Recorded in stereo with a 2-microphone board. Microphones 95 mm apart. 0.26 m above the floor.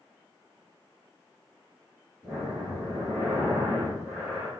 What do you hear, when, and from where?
2.2 s breathing: 25° right (ahead or behind), 8 m